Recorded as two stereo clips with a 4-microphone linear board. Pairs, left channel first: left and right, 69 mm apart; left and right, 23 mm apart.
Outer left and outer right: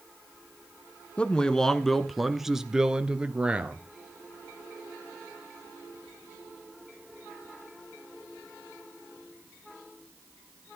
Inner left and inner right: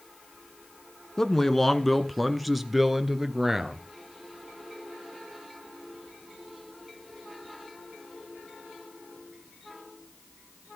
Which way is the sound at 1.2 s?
15° left (ahead or behind).